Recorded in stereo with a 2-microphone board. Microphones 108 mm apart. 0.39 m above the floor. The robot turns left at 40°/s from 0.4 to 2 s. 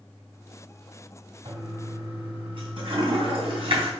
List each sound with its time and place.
1.4 s a toilet flushing: 65° right (ahead or behind), 2.5 m; by 3.9 s 50° right (ahead or behind), 2.5 m